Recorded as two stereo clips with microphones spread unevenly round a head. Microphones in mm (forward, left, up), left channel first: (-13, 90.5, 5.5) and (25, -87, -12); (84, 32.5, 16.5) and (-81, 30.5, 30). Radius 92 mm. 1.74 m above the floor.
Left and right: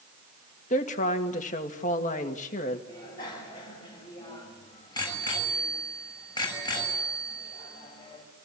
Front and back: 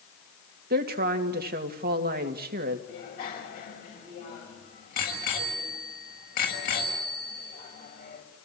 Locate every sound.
0.7 s a woman speaking: 150° left, 2.5 m
2.9 s a bicycle bell: 35° left, 7 m